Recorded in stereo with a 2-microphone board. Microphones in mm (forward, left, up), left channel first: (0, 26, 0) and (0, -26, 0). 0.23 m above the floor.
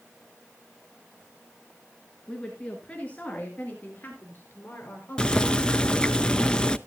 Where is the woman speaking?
10° left (ahead or behind), 2.5 m; by 6.0 s 50° left (ahead or behind), 4 m.